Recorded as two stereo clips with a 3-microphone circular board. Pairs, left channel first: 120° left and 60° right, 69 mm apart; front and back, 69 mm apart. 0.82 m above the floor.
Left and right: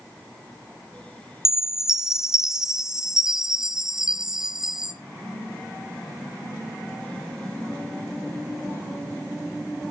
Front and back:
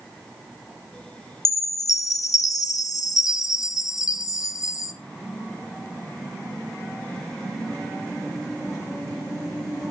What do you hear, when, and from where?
1.4 s a chime: 20° left, 1.0 m